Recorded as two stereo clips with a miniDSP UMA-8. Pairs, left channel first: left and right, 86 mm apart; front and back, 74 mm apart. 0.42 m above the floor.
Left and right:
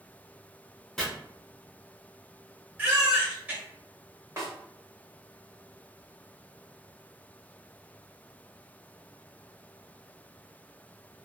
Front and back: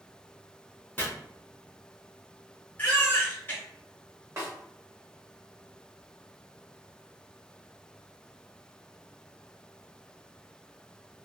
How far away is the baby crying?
About 0.9 m.